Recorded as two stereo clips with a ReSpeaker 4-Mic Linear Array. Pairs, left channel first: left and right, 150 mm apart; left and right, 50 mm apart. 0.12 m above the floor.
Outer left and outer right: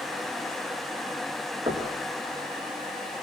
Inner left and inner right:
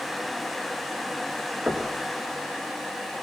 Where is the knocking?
35° right (ahead or behind), 6 m.